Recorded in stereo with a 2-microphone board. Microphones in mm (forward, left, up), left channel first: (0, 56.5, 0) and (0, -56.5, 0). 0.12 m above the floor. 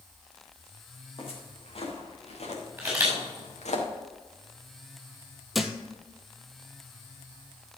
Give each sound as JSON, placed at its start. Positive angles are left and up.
{"t": 1.2, "sound": "footsteps", "side_deg": 55, "distance_m": 4.5}
{"t": 2.8, "sound": "a camera shutter", "side_deg": -15, "distance_m": 5.5}
{"t": 5.5, "sound": "a thud", "side_deg": 0, "distance_m": 1.0}